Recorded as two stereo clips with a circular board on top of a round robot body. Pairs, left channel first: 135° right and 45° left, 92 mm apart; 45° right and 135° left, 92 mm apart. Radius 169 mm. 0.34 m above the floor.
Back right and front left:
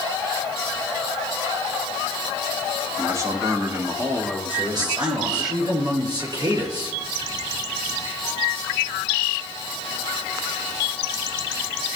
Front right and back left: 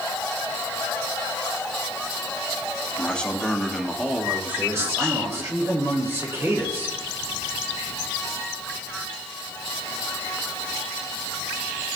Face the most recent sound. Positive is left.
turn(degrees=80)